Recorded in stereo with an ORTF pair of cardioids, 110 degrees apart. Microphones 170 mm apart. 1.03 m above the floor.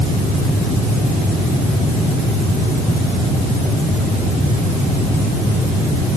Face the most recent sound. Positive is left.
No sound to turn to.